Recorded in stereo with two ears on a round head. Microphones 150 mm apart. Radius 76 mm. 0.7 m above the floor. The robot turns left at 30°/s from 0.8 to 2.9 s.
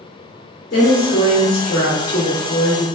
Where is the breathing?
I don't hear breathing.